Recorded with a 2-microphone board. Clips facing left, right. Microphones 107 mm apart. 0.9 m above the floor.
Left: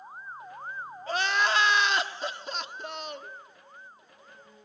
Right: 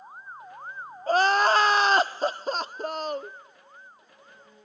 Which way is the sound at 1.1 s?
40° right (ahead or behind).